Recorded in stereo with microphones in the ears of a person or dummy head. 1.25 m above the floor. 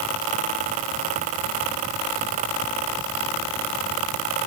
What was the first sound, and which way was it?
Only background noise.